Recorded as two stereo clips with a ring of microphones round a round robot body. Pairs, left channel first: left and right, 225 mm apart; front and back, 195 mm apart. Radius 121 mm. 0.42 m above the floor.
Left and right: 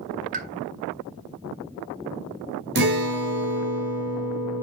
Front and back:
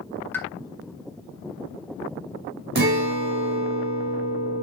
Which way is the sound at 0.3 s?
75° right.